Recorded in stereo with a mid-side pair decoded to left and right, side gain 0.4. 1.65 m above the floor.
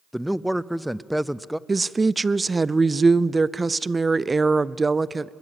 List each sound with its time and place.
0.1 s a man speaking: 5° right, 0.6 m
1.7 s a woman speaking: 25° right, 0.6 m